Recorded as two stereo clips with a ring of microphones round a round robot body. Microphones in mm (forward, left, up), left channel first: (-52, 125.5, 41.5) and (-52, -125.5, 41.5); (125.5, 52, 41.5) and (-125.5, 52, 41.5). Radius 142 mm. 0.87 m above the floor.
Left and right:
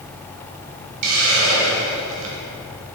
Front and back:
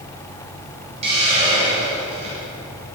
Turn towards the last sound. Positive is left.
turn(degrees=-110)